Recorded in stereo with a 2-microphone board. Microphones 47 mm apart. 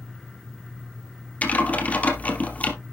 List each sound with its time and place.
1.4 s typing on a keyboard: 35° left (ahead or behind), 2.5 m